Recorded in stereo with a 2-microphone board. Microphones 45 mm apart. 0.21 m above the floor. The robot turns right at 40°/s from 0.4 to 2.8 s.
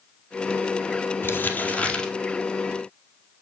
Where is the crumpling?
125° left, 1.9 m; by 2.1 s 160° left, 1.9 m.